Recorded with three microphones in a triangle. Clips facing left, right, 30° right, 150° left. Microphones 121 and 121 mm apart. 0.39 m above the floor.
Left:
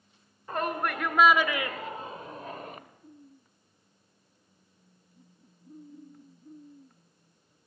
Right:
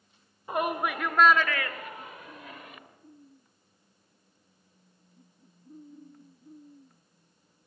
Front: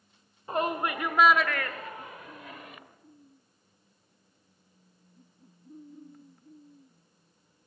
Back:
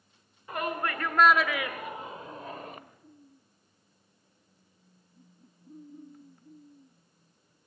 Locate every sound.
0.5 s a shout: 30° right, 1.3 m; by 2.8 s 120° left, 1.7 m